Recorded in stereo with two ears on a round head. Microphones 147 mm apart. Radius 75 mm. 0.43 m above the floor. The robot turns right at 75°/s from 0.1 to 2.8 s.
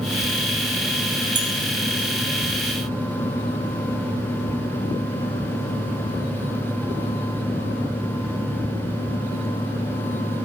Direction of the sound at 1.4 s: 25° right (ahead or behind).